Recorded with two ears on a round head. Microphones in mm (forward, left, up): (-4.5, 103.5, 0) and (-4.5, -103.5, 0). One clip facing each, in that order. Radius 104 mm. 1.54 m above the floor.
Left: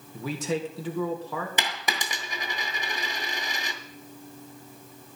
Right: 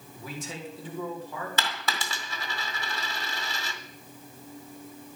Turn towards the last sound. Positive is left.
turn(degrees=15)  # may be behind; listen again after turning